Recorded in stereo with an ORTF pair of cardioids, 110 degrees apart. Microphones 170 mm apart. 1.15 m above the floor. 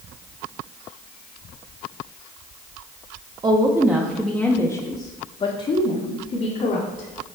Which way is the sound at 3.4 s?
25° right.